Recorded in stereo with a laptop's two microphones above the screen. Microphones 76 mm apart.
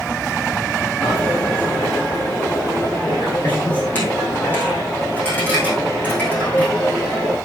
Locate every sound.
1.0 s a dropped coin: 20° left (ahead or behind), 3.5 m